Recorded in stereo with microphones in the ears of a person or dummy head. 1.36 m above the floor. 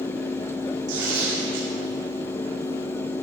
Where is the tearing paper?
75° right (ahead or behind), 3 m.